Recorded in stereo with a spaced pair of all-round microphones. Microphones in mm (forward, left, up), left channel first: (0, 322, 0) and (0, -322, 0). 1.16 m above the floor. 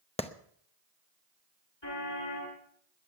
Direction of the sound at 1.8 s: 40° left (ahead or behind).